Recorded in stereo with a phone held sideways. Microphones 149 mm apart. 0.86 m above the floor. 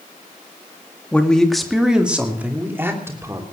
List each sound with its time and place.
1.1 s a man speaking: 10° left (ahead or behind), 1.8 m; by 3.4 s 20° right (ahead or behind), 3 m